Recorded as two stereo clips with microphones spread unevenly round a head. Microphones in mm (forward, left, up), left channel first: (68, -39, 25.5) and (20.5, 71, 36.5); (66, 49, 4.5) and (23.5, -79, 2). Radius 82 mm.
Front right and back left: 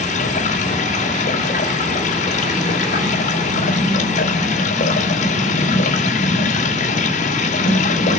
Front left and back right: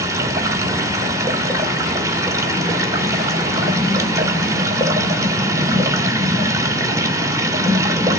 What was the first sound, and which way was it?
Running water, 40° right.